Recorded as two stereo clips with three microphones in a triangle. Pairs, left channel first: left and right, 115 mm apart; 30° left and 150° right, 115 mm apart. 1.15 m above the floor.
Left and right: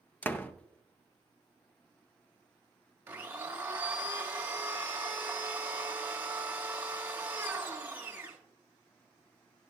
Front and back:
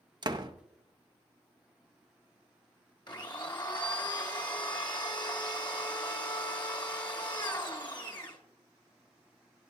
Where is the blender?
20° right, 1.1 m.